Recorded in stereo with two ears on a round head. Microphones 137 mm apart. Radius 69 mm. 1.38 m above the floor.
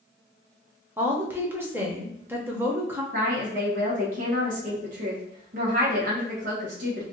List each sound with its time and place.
1.0 s a woman speaking: 15° right (ahead or behind), 0.7 m
3.1 s a woman speaking: 60° right (ahead or behind), 1.1 m